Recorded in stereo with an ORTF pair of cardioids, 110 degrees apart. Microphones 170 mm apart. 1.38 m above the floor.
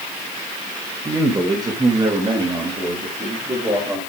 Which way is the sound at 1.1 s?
20° right.